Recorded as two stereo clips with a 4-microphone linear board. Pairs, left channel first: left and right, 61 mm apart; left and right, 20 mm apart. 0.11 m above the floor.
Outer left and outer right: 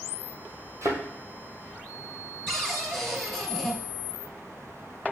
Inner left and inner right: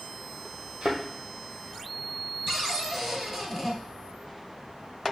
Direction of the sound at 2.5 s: Centre (ahead or behind).